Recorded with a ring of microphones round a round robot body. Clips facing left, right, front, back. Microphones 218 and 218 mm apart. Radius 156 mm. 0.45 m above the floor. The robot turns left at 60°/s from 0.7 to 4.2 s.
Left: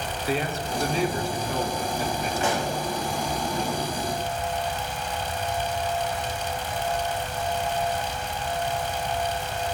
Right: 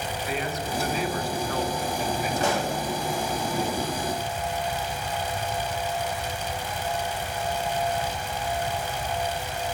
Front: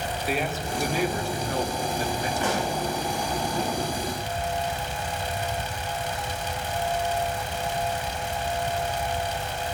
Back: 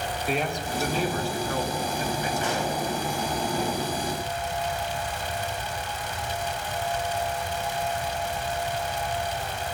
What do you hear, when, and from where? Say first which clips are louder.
0.3 s a man speaking: left 4 dB, even; 80° left, 1.2 m; by 2.3 s 15° right, 1.2 m
2.4 s a pop: even, front 1 dB; 35° right, 5 m; by 2.8 s 55° right, 5 m